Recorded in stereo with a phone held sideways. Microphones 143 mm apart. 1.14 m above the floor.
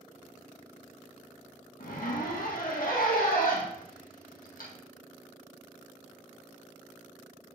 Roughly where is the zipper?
Left.